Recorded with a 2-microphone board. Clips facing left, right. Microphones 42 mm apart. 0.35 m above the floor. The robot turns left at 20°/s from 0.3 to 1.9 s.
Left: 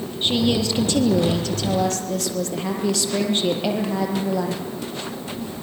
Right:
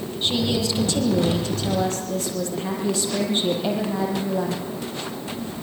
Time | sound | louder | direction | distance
0.2 | a woman speaking | left 3 dB | 150° left | 8.5 m